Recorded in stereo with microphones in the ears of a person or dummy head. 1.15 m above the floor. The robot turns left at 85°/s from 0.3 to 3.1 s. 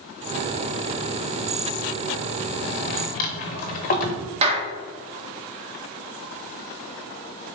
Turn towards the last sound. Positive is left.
turn(degrees=-25)  # may be behind; listen again after turning